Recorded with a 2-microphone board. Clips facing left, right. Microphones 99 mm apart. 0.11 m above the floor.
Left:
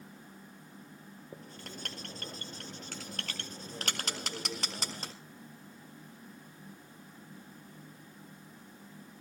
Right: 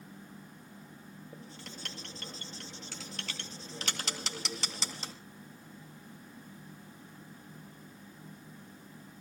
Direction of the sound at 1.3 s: 50° left (ahead or behind).